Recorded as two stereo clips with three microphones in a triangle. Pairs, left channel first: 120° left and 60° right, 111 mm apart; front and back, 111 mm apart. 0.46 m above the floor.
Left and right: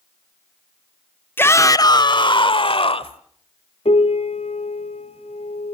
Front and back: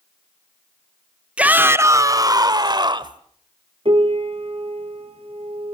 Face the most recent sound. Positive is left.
turn(degrees=145)